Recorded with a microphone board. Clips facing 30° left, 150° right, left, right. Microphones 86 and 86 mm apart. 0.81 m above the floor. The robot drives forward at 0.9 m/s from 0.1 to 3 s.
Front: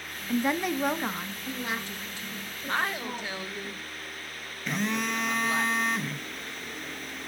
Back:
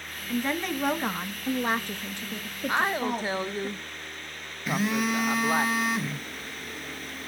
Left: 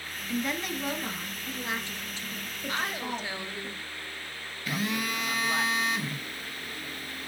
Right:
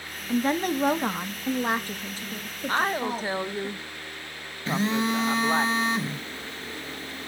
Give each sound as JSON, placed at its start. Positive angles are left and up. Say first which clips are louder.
{"t": 0.3, "sound": "a woman speaking", "louder": "front 2 dB, right 7 dB", "azimuth_deg": -40, "distance_m": 1.4}
{"t": 2.7, "sound": "a woman speaking", "louder": "back 4 dB, right 7 dB", "azimuth_deg": -75, "distance_m": 0.6}
{"t": 4.7, "sound": "a phone buzzing", "louder": "back 3 dB, right 6 dB", "azimuth_deg": -70, "distance_m": 1.1}